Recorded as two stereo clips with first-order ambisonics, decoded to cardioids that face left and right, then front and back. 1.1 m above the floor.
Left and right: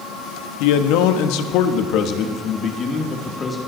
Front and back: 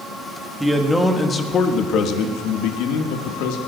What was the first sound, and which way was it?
A man speaking, 95° left.